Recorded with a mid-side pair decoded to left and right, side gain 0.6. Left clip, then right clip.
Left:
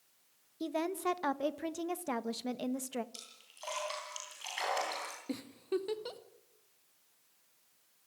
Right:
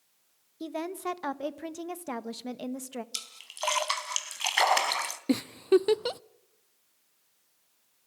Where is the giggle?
55° right, 0.5 m.